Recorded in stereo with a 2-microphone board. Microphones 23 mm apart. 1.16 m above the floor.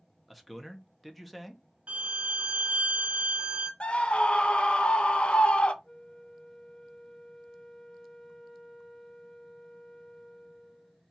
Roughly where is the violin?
Right.